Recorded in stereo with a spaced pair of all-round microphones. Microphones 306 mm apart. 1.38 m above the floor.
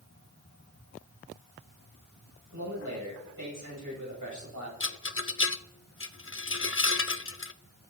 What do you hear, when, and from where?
2.5 s a man speaking: 85° right, 9.5 m
4.8 s a rattle: 45° left (ahead or behind), 0.6 m